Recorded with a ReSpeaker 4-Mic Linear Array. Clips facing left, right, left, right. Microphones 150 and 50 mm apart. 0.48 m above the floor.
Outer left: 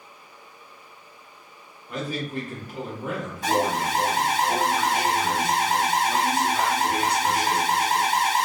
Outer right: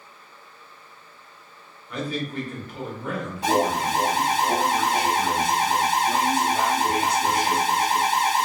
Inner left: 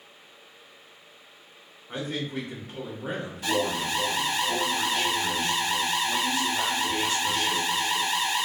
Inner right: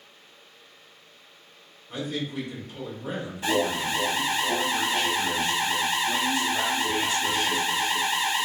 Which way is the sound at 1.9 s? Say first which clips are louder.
Outer right 1 dB, even; 45° left (ahead or behind).